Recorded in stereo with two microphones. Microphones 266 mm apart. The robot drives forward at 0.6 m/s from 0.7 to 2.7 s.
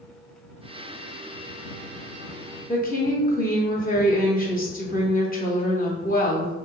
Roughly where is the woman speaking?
Left.